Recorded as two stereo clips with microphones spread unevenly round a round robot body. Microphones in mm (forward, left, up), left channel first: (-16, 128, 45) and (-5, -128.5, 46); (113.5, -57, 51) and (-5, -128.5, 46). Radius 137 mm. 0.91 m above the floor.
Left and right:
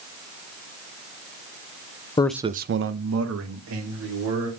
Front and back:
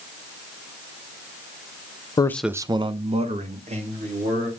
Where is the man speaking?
45° left, 0.5 m; by 4.5 s 115° right, 2.5 m.